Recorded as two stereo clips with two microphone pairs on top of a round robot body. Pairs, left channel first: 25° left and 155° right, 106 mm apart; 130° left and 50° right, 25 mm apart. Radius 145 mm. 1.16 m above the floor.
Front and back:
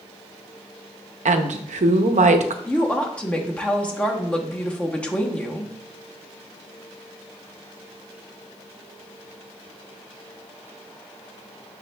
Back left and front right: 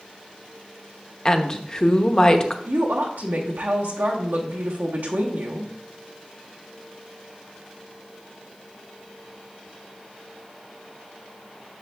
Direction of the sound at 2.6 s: 55° right.